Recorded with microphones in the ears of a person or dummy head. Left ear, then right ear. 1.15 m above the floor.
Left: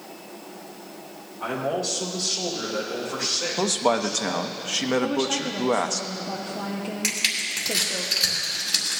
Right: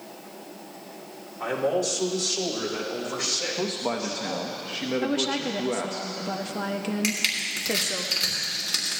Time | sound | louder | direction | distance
1.4 | a man speaking | right 2 dB | 65° right (ahead or behind) | 2.5 m
3.6 | a man speaking | left 6 dB | 40° left (ahead or behind) | 0.8 m
5.0 | a woman speaking | left 1 dB | 35° right (ahead or behind) | 0.6 m
7.0 | crushing | left 2 dB | 10° right (ahead or behind) | 3.5 m